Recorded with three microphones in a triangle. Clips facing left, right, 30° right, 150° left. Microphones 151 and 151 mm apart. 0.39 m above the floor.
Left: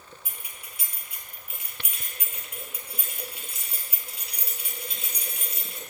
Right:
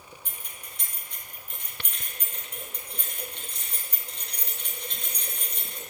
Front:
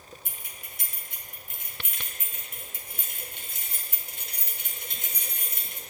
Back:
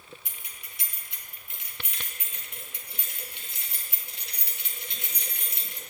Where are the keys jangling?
5° left, 3 m.